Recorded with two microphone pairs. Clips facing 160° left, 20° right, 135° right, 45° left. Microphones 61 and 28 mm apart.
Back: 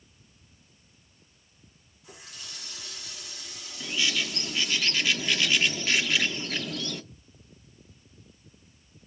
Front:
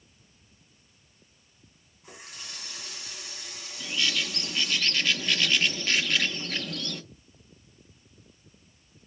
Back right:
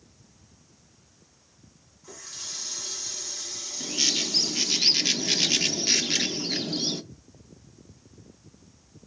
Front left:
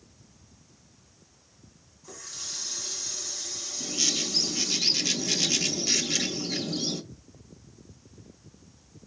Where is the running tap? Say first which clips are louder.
Front 2 dB, even; 65° right, 3 m.